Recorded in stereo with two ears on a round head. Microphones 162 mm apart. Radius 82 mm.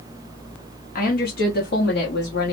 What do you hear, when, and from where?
0.9 s a woman speaking: 50° left (ahead or behind), 0.9 m; by 2.5 s 60° left (ahead or behind), 1.3 m